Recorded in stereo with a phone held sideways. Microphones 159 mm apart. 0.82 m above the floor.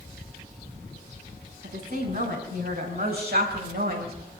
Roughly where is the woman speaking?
Right.